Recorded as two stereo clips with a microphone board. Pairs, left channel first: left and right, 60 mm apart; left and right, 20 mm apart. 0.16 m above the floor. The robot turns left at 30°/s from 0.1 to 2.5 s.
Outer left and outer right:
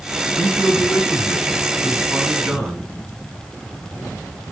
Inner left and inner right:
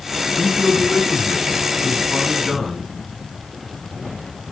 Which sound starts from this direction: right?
A man speaking, at 0.4 s.